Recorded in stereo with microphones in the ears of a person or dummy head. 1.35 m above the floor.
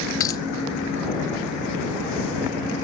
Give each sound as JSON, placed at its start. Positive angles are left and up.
{"t": 0.2, "sound": "a dropped coin", "side_deg": 25}